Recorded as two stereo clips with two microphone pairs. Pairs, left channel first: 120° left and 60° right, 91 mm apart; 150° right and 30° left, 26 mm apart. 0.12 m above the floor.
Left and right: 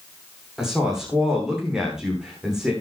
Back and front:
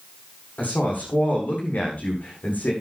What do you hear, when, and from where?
0.6 s a woman speaking: 145° right, 9 m